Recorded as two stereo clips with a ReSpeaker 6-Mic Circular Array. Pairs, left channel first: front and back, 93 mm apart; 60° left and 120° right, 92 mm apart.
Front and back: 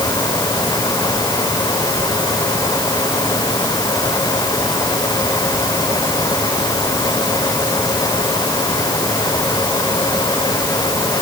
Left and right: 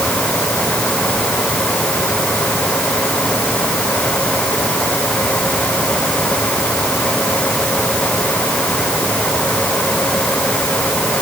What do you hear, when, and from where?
Only background noise.